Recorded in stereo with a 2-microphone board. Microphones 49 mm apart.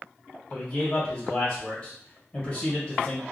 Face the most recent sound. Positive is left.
turn(degrees=15)  # may be behind; listen again after turning